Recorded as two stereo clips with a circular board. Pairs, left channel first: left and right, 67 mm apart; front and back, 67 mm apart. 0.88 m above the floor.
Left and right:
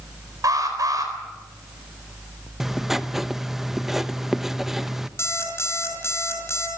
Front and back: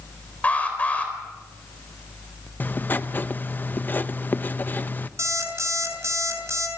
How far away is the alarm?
About 4.5 m.